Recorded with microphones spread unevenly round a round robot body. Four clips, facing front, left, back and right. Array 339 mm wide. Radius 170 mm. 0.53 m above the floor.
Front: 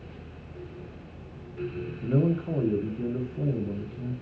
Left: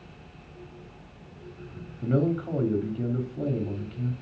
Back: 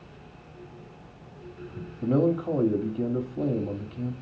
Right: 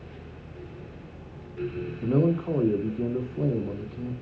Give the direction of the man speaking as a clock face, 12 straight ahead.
6 o'clock.